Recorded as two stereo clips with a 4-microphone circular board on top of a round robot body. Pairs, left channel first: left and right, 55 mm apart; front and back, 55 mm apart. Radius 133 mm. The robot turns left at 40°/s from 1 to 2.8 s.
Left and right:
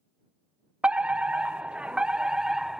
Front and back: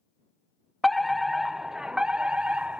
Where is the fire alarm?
85° right; by 2.8 s 160° right.